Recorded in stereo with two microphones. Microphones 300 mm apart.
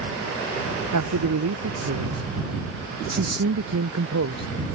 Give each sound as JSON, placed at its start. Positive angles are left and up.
{"t": 0.9, "sound": "a man speaking", "side_deg": -70}